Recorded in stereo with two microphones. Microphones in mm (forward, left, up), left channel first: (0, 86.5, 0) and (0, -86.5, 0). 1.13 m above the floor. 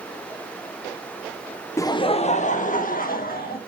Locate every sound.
1.8 s laughter: 15° left (ahead or behind), 0.7 m; by 3.6 s 60° left (ahead or behind), 2.0 m